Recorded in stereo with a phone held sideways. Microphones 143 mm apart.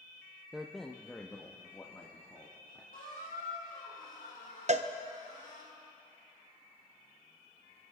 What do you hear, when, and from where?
0.5 s a man speaking: 5° right (ahead or behind), 0.5 m; by 2.8 s 20° left (ahead or behind), 2 m
2.9 s a squeak: 80° left, 4 m
4.7 s a cowbell: 50° right (ahead or behind), 0.6 m